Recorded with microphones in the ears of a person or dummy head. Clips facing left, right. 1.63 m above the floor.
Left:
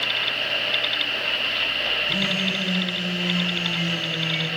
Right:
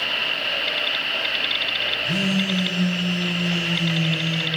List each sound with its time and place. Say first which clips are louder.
2.0 s a phone buzzing: right 6 dB; 25° right (ahead or behind), 4 m